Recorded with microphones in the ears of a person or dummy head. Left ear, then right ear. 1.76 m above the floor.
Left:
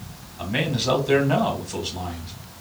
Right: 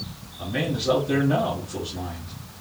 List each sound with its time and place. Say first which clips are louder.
0.4 s a man speaking: left 2 dB; 50° left (ahead or behind), 2.0 m